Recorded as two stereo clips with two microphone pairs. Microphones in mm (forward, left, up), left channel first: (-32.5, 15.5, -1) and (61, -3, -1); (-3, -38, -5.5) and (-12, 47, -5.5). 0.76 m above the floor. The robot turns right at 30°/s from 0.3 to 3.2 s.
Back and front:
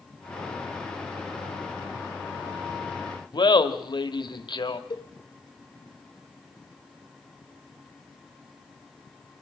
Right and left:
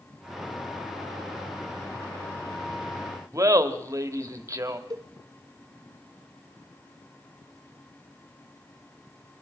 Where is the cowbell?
135° left, 1.5 m.